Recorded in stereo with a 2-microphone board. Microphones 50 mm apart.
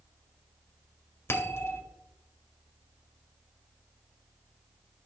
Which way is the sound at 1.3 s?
55° left (ahead or behind).